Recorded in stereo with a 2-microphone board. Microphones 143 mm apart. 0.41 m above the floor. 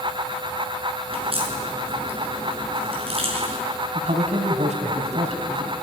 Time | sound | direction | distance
1.1 | a crack | 45° right (ahead or behind) | 6 m
4.0 | a man speaking | 55° right (ahead or behind) | 3 m